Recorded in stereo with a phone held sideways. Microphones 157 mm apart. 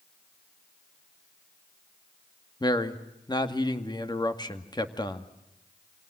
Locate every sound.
2.6 s a man speaking: 30° left (ahead or behind), 2 m